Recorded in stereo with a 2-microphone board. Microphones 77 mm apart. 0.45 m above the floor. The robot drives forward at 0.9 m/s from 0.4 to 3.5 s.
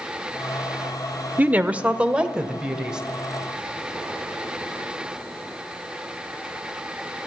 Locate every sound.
1.4 s a woman speaking: 20° right (ahead or behind), 0.9 m; by 3.0 s 10° right (ahead or behind), 2 m